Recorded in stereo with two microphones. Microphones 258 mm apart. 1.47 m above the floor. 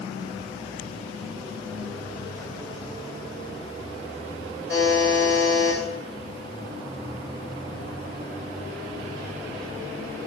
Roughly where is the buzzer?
Left.